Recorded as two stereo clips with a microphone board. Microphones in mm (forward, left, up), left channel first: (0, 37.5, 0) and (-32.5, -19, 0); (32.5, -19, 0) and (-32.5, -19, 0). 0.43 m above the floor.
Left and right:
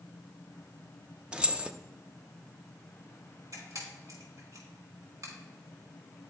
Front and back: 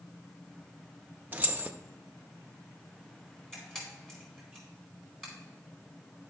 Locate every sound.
1.3 s keys jangling: straight behind, 0.5 m
3.5 s a camera shutter: 85° right, 4 m